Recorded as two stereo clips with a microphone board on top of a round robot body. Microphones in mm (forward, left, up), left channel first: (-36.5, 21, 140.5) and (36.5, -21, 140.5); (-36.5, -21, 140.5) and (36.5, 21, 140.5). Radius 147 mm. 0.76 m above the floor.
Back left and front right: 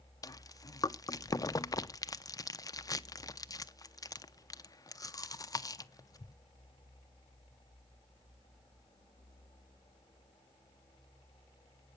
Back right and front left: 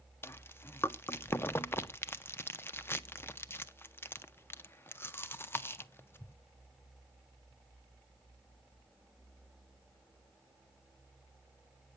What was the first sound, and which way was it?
Chewing, 160° left.